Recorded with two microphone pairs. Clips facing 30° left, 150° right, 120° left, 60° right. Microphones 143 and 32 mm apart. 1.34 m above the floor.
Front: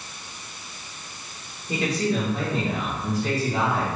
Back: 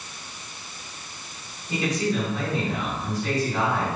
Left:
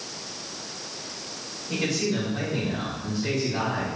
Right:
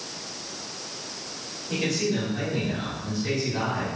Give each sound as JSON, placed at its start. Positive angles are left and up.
{"t": 1.7, "sound": "a man speaking", "azimuth_deg": 30, "distance_m": 2.0}